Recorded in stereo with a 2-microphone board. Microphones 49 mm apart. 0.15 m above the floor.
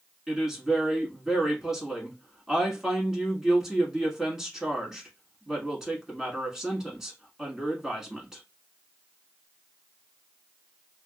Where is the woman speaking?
10° right (ahead or behind), 1.3 m.